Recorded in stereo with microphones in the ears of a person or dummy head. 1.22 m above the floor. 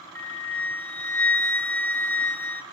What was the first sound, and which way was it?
A flute, 10° left (ahead or behind).